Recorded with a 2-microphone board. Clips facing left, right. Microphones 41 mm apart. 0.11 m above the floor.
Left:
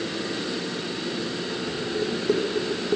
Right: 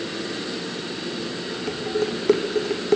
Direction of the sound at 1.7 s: 60° right (ahead or behind).